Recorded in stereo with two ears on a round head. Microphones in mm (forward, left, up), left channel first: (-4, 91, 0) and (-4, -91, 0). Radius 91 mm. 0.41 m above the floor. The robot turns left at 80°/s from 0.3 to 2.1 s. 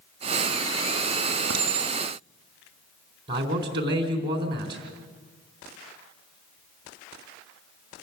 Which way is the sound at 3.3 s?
25° right (ahead or behind).